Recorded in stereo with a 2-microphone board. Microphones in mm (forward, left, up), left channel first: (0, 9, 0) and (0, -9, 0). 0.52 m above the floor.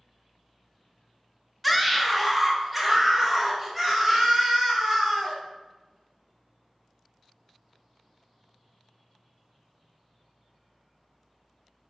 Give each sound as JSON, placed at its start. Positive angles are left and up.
{"t": 1.6, "sound": "a scream", "side_deg": 0, "distance_m": 0.9}